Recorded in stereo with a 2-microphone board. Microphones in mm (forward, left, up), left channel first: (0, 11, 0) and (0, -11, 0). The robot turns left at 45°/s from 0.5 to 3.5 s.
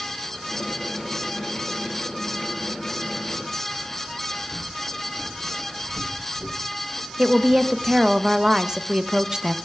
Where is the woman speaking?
20° right (ahead or behind), 0.5 m.